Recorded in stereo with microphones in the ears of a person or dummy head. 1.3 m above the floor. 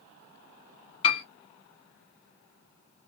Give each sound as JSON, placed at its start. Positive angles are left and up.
{"t": 1.0, "sound": "a piano", "side_deg": 30, "distance_m": 1.4}